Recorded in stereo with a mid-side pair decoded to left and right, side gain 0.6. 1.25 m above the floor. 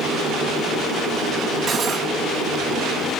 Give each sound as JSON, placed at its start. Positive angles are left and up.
{"t": 1.7, "sound": "cutlery clinking", "azimuth_deg": -40, "distance_m": 4.5}